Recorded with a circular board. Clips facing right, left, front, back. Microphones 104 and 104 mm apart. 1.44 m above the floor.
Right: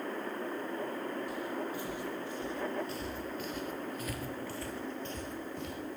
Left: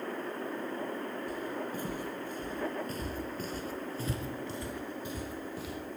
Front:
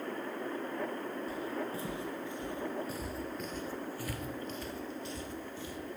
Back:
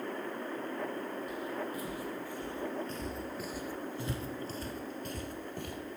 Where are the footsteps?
50° left, 3 m; by 5.8 s straight behind, 2.5 m.